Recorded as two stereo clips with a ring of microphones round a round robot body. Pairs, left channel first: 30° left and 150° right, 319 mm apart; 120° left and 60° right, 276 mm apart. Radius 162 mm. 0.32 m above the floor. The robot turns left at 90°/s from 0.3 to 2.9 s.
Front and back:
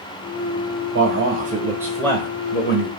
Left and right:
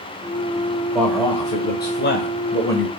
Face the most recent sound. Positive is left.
turn(degrees=35)